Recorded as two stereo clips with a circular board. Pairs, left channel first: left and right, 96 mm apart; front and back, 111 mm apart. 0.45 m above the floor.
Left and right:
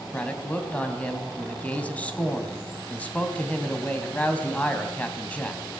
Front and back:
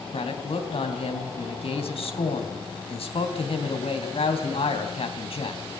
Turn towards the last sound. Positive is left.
turn(degrees=15)